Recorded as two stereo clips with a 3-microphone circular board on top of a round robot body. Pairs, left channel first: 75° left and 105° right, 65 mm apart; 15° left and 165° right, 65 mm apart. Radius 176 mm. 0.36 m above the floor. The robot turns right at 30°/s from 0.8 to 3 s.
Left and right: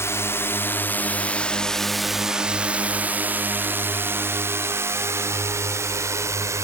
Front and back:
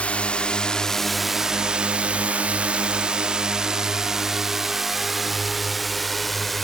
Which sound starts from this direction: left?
A drone, at 0.0 s.